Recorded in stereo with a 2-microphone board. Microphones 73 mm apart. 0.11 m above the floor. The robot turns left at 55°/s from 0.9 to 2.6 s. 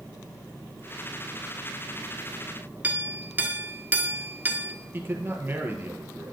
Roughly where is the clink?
Right.